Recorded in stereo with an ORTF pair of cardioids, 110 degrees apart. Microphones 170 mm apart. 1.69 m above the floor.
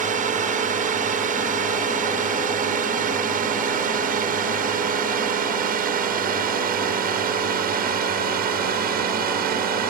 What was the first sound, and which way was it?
A drone, 50° right.